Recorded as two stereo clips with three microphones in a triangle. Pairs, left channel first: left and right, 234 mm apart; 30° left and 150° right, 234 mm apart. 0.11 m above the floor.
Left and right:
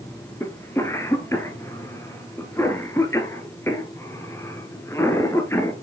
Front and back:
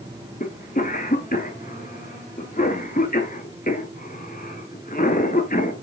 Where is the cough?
20° left, 1.3 m.